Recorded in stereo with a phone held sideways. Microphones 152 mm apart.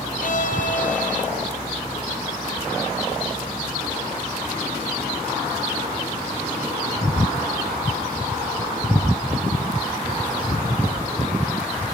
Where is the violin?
60° left (ahead or behind), 0.8 m.